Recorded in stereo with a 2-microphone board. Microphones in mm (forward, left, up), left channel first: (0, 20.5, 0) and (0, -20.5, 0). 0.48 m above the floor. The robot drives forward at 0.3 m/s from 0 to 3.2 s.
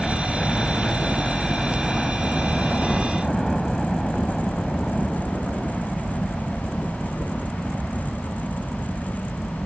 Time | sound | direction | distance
0.0 | a helicopter | 5° left (ahead or behind) | ?